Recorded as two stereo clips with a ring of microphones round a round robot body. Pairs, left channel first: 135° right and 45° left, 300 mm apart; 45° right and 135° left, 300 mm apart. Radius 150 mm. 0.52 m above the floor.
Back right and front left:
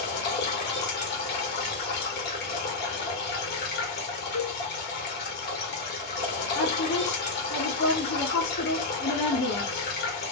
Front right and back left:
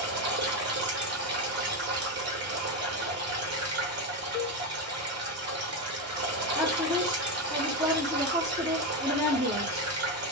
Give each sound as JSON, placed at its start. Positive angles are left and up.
{"t": 0.0, "sound": "running water", "azimuth_deg": 175, "distance_m": 1.2}
{"t": 4.3, "sound": "a cowbell", "azimuth_deg": -100, "distance_m": 0.7}
{"t": 6.5, "sound": "a woman speaking", "azimuth_deg": -150, "distance_m": 1.4}